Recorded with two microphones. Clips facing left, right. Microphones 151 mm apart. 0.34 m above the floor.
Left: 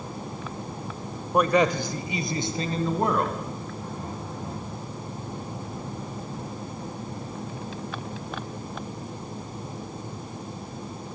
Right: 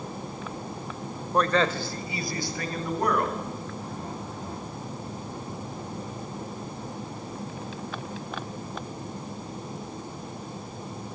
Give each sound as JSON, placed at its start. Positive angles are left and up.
{"t": 1.3, "sound": "a man speaking", "side_deg": 10, "distance_m": 1.6}